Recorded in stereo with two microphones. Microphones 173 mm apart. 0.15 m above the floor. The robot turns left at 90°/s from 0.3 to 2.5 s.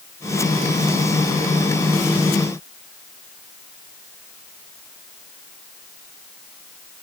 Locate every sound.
Only background noise.